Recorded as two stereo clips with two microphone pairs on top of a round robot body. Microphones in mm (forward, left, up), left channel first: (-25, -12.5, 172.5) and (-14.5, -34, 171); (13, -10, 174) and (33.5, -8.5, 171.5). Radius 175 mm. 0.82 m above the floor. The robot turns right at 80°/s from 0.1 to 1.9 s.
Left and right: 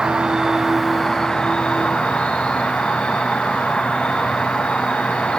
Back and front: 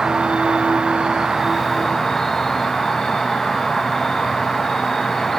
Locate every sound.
0.0 s an insect: 40° right, 1.8 m; by 5.4 s 105° left, 1.8 m